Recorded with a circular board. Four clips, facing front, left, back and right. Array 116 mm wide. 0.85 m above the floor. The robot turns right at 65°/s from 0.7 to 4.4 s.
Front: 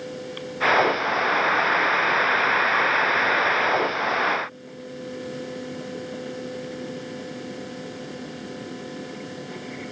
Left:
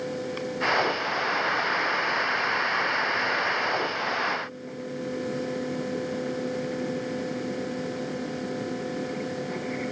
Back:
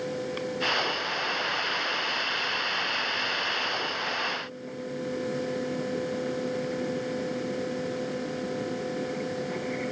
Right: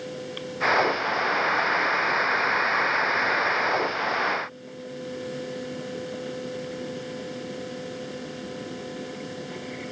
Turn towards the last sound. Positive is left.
No sound to turn to.